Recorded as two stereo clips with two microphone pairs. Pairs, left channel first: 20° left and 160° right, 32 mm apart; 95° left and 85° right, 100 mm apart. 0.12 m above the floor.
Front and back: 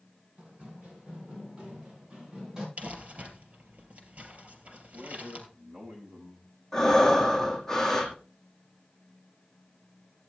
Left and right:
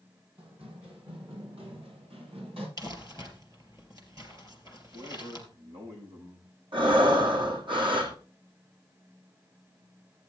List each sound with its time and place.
0.4 s running footsteps: 105° right, 9.5 m; by 2.7 s 90° right, 8 m
2.8 s crumpling: 125° right, 3 m
4.9 s a man speaking: 90° right, 7 m
6.7 s breathing: 55° right, 2.5 m